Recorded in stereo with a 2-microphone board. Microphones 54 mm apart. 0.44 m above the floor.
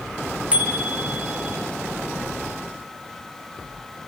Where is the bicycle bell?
25° right (ahead or behind), 6 m.